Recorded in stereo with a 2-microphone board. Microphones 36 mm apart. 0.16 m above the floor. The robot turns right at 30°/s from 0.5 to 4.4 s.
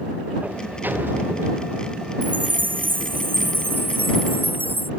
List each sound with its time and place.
0.4 s a sliding door: 130° right; by 1.8 s 90° right
2.2 s a chime: 135° right; by 4.9 s 70° right